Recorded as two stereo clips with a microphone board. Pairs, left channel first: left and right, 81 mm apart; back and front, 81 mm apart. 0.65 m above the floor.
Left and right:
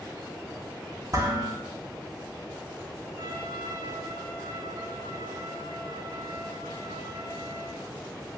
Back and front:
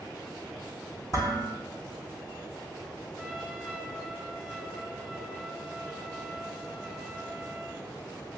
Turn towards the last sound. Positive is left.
turn(degrees=-90)